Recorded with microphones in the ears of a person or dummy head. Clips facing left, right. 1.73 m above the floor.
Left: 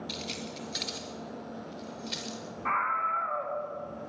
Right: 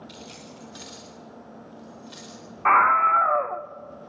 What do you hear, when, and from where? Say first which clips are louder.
0.1 s keys jangling: left 4 dB; 25° left (ahead or behind), 3.5 m; by 2.4 s 30° left (ahead or behind), 5.5 m
2.6 s a scream: right 13 dB; 60° right (ahead or behind), 0.5 m